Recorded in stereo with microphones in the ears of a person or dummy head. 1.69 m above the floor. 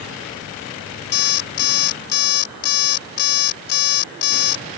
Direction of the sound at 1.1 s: 50° left (ahead or behind).